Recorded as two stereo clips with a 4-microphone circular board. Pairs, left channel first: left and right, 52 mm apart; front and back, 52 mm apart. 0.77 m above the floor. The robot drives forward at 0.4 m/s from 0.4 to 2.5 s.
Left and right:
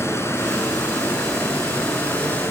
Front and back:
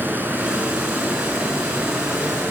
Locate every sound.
0.0 s running water: 125° left, 5.5 m; by 2.5 s 135° left, 6 m